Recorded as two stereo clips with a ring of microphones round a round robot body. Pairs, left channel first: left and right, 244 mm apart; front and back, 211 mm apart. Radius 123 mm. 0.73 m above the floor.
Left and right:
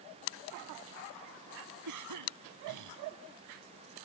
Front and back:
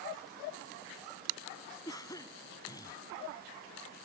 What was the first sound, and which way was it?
A cough, 75° right.